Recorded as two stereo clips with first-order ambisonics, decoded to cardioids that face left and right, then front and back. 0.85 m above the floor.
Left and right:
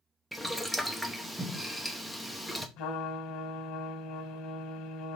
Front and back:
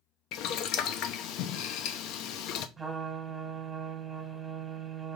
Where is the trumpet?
100° left, 1.2 m.